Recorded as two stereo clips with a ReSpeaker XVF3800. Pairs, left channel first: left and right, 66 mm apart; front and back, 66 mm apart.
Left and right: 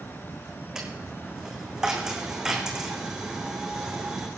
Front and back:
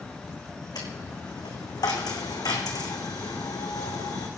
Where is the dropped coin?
10° right, 2 m.